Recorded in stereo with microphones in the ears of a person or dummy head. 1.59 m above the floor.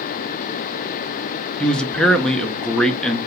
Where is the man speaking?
Centre (ahead or behind), 0.5 m.